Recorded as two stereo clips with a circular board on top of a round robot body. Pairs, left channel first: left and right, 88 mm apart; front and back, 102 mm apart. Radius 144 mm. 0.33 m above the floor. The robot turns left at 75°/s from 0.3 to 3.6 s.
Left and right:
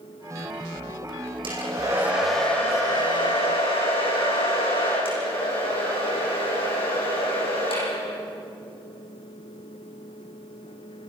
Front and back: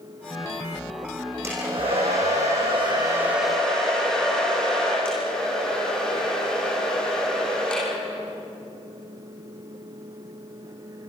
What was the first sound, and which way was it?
A hair dryer, 115° right.